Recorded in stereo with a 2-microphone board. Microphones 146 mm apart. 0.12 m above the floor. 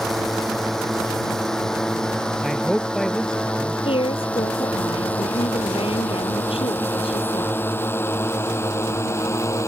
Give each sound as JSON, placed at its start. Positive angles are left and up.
{"t": 0.0, "sound": "a drone", "side_deg": 0}
{"t": 2.4, "sound": "a man speaking", "side_deg": 0}
{"t": 3.9, "sound": "a woman speaking", "side_deg": 40}